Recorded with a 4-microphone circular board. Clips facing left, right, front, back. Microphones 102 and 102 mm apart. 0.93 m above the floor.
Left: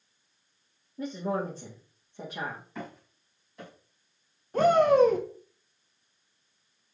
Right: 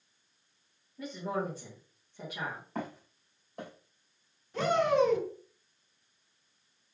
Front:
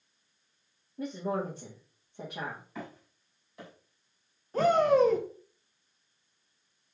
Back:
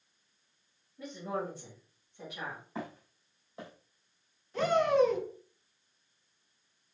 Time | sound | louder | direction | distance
1.0 | a woman speaking | left 4 dB, front 4 dB | 35° left | 1.3 m
2.8 | footsteps | right 2 dB, back 2 dB | 125° right | 2.5 m
4.5 | a shout | left 6 dB, front 3 dB | 45° left | 1.1 m